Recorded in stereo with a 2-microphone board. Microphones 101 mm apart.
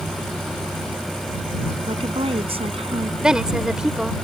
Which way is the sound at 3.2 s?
5° right (ahead or behind).